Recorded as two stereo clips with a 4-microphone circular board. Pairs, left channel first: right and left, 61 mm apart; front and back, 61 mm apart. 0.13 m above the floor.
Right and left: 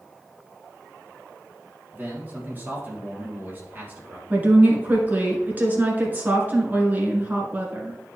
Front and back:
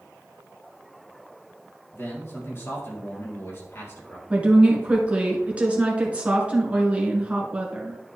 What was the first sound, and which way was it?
A man speaking, 35° left.